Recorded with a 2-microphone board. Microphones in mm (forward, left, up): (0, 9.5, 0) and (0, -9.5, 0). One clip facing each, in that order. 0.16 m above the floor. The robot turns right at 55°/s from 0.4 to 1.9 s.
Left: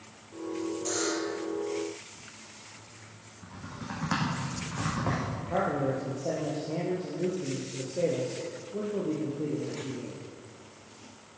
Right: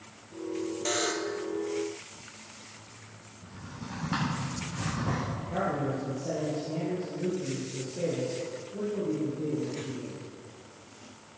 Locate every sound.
0.8 s a buzzer: 45° right (ahead or behind), 1.5 m; by 1.4 s 15° right (ahead or behind), 1.5 m
3.4 s typing on a keyboard: 70° left (ahead or behind), 7.5 m
5.4 s a man speaking: 55° left (ahead or behind), 4.5 m